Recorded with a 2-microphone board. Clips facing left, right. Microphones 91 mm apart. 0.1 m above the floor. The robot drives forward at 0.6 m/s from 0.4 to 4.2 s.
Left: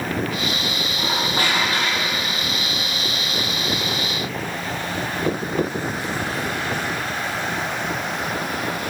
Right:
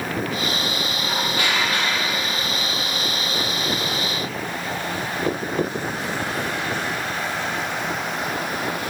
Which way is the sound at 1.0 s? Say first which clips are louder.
Left 3 dB; 45° left (ahead or behind).